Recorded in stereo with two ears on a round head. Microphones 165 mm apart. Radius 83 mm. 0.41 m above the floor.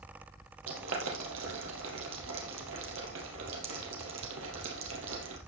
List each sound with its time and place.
0.7 s boiling: 85° right, 3.5 m